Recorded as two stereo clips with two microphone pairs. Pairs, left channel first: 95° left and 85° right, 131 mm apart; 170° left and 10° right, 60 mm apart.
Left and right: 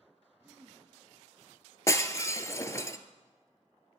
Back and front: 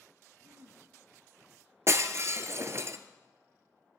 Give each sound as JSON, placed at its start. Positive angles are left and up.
{"t": 0.4, "sound": "throat clearing", "azimuth_deg": -5, "distance_m": 1.0}
{"t": 1.9, "sound": "breaking glass", "azimuth_deg": 30, "distance_m": 0.6}